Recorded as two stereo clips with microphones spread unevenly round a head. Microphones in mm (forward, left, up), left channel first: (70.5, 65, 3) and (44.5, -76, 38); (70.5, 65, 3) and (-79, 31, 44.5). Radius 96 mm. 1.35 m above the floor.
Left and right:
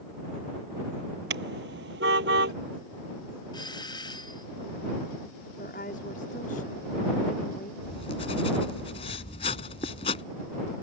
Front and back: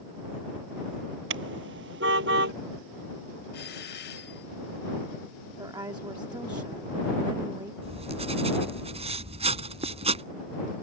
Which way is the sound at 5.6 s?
130° left.